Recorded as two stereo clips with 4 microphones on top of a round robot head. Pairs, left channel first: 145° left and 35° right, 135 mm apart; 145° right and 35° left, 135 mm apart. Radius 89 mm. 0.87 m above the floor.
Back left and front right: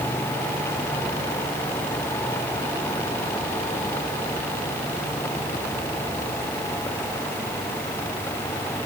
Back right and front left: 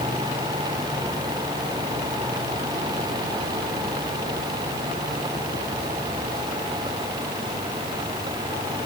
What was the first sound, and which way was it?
Only background noise.